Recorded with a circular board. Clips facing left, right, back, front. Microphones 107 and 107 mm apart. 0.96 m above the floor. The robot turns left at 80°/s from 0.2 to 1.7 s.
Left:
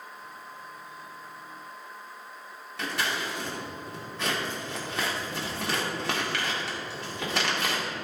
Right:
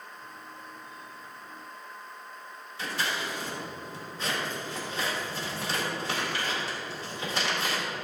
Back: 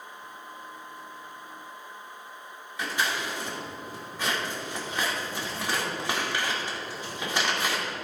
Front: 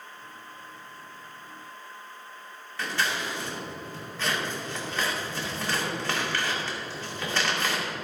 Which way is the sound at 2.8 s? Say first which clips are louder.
Left 1 dB, even; 105° left.